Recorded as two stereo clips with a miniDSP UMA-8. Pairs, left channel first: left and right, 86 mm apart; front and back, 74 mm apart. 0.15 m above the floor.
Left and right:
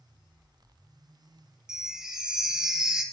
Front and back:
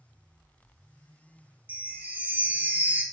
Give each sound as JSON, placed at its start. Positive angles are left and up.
{"t": 1.7, "sound": "a chime", "azimuth_deg": -160, "distance_m": 0.7}